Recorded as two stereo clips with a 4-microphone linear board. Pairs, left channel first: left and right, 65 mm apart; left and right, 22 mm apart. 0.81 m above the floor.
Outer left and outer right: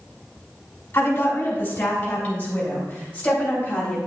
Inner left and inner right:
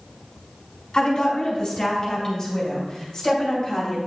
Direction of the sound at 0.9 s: 35° left (ahead or behind).